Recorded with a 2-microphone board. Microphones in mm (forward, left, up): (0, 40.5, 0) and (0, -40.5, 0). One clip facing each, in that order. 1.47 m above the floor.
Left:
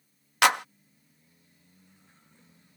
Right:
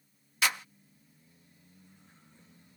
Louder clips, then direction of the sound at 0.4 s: Left 10 dB; 70° left (ahead or behind).